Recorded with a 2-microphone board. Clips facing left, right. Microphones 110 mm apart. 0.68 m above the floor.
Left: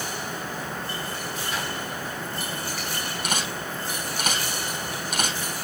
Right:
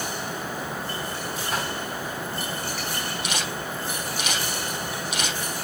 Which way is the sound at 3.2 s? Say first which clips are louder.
Even; 50° left (ahead or behind).